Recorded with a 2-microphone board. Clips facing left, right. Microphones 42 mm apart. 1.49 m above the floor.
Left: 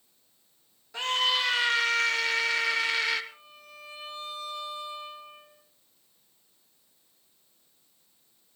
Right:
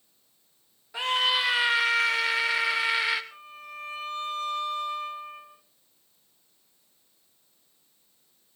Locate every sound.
0.9 s a scream: 15° right (ahead or behind), 3 m
3.3 s a violin: 50° right (ahead or behind), 3.5 m